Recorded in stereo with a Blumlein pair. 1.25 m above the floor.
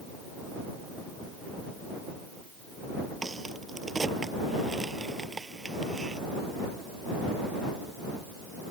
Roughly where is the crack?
Ahead.